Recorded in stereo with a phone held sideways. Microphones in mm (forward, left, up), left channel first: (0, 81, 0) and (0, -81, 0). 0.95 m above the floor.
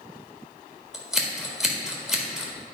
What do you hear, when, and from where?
0.9 s scissors: 5° right (ahead or behind), 1.4 m